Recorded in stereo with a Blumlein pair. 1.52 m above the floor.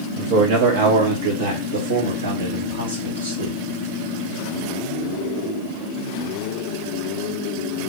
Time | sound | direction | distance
0.2 | a man speaking | 45° right | 0.9 m